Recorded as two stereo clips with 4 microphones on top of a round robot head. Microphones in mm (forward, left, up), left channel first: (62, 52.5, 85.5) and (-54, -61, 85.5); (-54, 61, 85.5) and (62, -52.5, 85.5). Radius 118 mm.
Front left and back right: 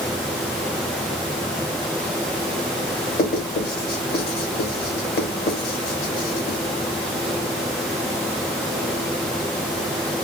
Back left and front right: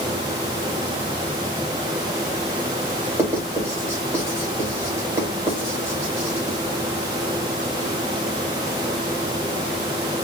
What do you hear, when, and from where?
3.2 s writing: 30° left, 2 m